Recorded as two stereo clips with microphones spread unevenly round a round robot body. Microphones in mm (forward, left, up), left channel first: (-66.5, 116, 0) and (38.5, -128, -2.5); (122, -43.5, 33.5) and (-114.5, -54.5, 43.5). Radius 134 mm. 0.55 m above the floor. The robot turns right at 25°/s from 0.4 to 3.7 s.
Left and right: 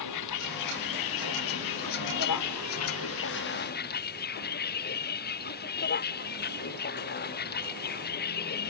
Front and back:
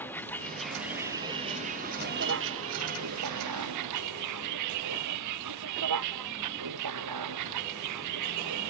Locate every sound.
0.0 s a vehicle: 85° left; by 8.7 s 170° left